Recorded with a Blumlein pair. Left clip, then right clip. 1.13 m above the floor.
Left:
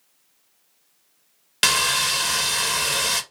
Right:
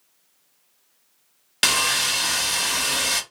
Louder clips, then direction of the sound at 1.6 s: Left 1 dB; straight ahead.